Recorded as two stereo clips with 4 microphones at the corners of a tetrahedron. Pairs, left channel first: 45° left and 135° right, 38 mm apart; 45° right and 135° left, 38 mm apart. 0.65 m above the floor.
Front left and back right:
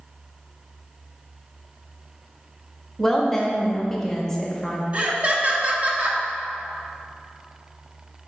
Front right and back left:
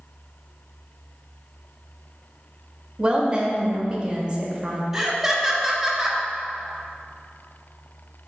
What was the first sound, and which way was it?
A woman speaking, 110° left.